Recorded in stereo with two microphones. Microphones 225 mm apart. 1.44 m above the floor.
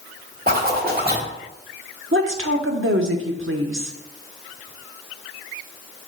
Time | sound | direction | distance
0.5 | a zipper | 40° right (ahead or behind) | 1.5 m
2.1 | a woman speaking | 65° right (ahead or behind) | 1.0 m